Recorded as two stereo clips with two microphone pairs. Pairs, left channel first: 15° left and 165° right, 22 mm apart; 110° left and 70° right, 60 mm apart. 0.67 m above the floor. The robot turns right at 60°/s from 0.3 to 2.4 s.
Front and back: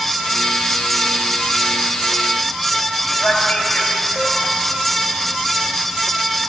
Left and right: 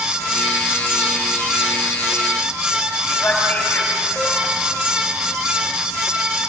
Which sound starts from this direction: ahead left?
A man speaking, at 3.1 s.